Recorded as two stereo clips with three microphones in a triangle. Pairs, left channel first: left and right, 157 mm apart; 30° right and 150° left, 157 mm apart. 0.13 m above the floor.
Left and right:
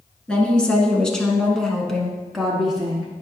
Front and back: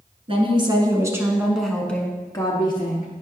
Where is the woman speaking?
170° left, 1.4 m; by 3.1 s 5° right, 1.4 m.